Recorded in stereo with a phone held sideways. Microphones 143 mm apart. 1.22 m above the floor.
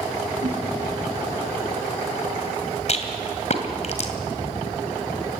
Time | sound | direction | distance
0.4 | a whoosh | 65° right (ahead or behind) | 3 m
2.9 | a rattle | 50° left (ahead or behind) | 2 m